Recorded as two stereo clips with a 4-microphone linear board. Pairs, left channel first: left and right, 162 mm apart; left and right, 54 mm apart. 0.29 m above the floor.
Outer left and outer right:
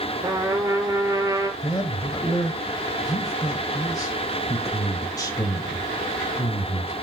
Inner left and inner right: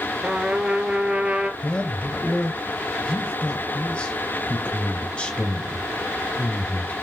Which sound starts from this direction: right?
A trumpet, at 0.2 s.